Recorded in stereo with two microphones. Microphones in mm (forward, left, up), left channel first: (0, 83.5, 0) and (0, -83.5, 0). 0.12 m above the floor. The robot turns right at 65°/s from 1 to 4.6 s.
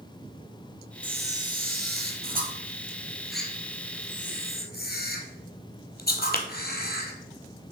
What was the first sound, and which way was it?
A camera shutter, 30° right (ahead or behind).